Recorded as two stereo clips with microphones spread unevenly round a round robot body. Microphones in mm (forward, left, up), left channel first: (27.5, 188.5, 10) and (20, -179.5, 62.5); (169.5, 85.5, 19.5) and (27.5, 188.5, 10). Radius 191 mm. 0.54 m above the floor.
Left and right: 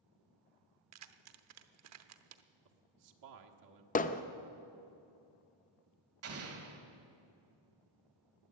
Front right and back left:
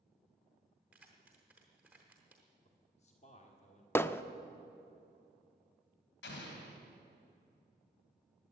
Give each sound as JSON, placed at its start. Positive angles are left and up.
{"t": 0.9, "sound": "keys jangling", "azimuth_deg": -135, "distance_m": 0.7}
{"t": 2.6, "sound": "a man speaking", "azimuth_deg": -80, "distance_m": 1.4}
{"t": 4.0, "sound": "hammering", "azimuth_deg": 40, "distance_m": 0.7}
{"t": 6.2, "sound": "an explosion", "azimuth_deg": -40, "distance_m": 2.5}